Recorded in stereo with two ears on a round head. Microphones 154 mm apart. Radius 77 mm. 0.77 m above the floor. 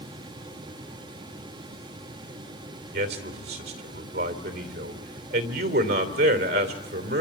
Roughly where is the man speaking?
Right.